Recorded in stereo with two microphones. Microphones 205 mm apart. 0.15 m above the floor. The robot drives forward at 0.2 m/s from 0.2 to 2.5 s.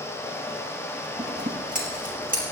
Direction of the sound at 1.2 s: 45° right (ahead or behind).